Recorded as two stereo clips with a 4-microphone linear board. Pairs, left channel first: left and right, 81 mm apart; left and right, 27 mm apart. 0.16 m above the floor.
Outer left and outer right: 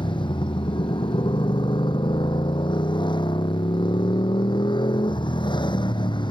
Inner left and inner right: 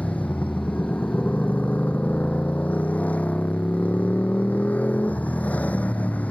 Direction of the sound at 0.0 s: 80° left.